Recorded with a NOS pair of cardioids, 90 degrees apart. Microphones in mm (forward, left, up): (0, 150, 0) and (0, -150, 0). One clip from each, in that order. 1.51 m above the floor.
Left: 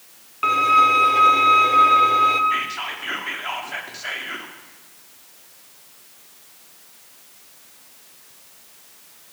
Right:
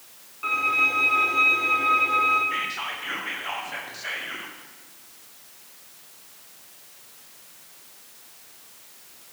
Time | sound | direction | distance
0.4 | a violin | 65° left | 0.9 m
2.5 | whispering | 20° left | 1.2 m